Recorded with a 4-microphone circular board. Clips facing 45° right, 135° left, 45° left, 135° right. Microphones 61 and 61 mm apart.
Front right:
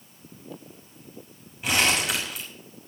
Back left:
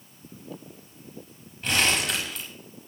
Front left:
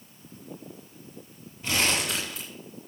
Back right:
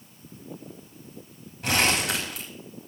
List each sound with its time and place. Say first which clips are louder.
1.6 s crumpling: front right 1 dB, back right 3 dB; 130° right, 6 m